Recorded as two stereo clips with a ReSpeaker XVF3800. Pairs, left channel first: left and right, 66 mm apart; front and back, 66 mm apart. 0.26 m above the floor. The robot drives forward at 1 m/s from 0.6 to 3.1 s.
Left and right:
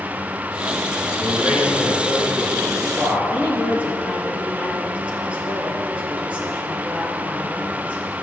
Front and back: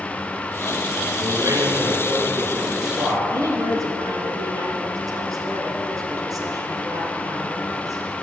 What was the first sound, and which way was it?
A man speaking, 135° right.